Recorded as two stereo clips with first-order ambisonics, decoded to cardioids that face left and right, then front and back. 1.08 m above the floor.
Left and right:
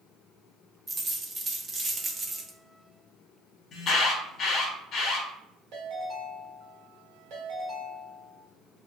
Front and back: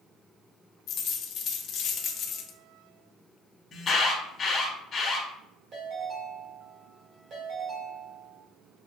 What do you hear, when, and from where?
0.9 s a dropped coin: 25° right, 0.5 m
3.7 s an alarm: 50° left, 1.1 m
5.7 s a ringtone: 125° right, 1.7 m